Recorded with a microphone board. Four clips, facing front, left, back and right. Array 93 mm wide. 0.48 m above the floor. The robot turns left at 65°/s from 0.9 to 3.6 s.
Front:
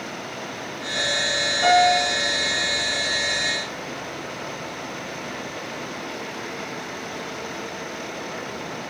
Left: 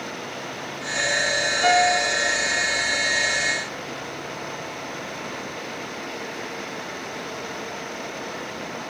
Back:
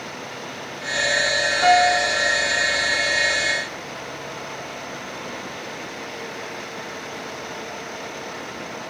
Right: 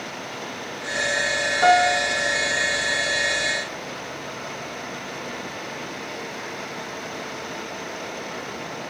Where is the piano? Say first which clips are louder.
Right 2 dB, back 1 dB; 110° right, 6 m; by 2.1 s 145° right, 6 m.